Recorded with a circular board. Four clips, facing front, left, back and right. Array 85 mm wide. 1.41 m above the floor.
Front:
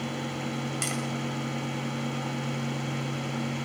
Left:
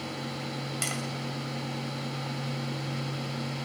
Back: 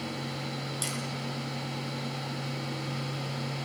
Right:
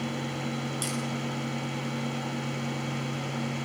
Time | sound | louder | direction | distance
0.8 | tapping | right 2 dB, front 4 dB | 50° left | 6 m